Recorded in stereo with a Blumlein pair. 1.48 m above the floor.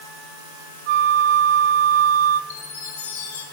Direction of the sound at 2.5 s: 65° left.